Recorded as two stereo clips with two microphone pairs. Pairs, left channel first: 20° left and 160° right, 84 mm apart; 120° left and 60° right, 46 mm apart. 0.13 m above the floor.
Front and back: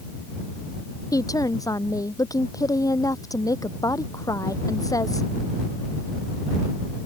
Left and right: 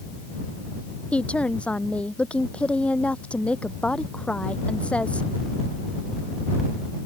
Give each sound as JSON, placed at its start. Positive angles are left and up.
{"t": 1.1, "sound": "a woman speaking", "azimuth_deg": 60}